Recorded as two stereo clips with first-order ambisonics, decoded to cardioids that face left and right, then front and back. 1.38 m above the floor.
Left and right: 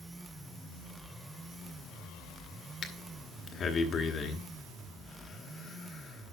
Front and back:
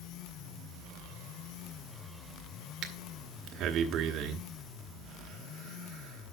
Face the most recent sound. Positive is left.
turn(degrees=145)